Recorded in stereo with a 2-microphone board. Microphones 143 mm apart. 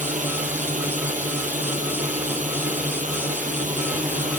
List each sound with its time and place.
0.0 s a drone: 65° right (ahead or behind)